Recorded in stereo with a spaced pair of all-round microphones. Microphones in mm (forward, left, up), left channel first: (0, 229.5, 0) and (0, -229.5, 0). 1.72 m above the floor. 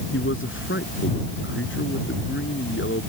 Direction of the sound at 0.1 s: 25° left (ahead or behind).